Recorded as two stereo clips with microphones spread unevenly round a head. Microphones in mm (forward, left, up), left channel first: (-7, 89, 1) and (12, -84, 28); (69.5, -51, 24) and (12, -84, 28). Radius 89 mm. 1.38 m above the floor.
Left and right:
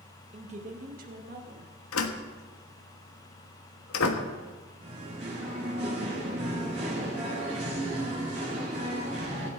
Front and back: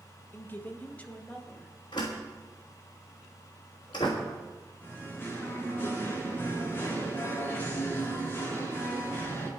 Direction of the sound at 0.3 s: 25° right.